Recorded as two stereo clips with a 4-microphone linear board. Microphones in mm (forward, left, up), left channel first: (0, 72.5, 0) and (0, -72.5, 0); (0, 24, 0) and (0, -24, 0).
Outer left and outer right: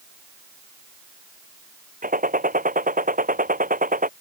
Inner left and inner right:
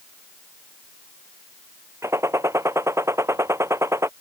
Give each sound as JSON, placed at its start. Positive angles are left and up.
{"t": 2.0, "sound": "a gunshot", "side_deg": -75}